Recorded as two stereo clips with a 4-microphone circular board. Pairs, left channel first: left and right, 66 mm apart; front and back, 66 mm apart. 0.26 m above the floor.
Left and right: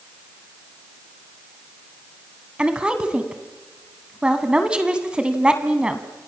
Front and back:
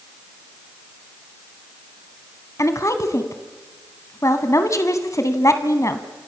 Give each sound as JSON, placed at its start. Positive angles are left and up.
{"t": 2.6, "sound": "a woman speaking", "azimuth_deg": -20, "distance_m": 2.0}